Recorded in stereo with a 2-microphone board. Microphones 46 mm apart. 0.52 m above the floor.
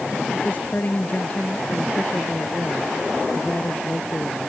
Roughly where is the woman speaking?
Left.